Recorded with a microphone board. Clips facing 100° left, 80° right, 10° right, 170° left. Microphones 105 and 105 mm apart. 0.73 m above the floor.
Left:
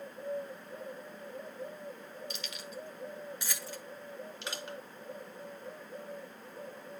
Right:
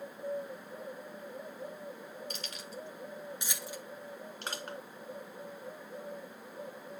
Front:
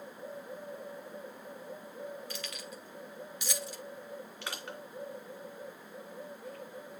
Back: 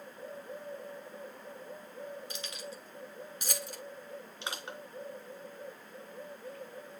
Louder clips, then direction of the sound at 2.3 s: Even, even; 120° right.